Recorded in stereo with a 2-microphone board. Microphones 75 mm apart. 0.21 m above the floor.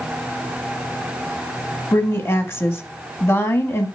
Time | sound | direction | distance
1.9 | a woman speaking | 35° left (ahead or behind) | 1.2 m